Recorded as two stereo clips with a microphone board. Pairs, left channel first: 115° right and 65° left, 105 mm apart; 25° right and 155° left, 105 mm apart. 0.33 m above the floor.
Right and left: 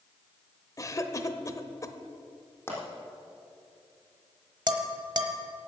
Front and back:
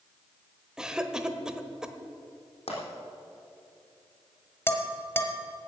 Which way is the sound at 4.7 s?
40° left.